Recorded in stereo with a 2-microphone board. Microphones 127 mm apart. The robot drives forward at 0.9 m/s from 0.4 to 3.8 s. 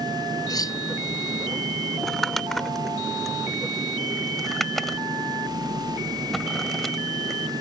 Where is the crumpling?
Centre (ahead or behind).